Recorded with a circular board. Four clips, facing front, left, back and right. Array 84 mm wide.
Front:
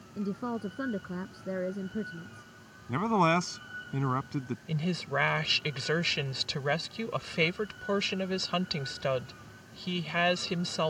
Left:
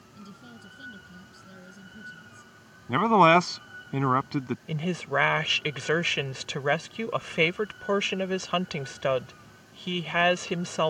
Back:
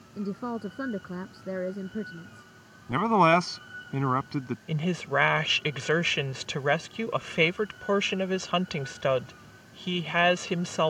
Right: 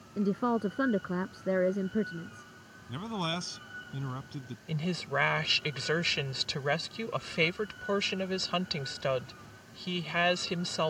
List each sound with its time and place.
0.2 s a woman speaking: 95° right
2.9 s a man speaking: 110° left
4.7 s a woman speaking: 135° left